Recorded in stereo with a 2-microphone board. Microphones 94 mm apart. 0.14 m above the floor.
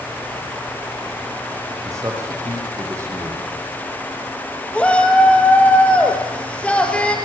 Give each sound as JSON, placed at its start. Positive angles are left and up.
{"t": 1.9, "sound": "a man speaking", "side_deg": -30, "distance_m": 7.5}
{"t": 4.7, "sound": "a shout", "side_deg": 15, "distance_m": 4.0}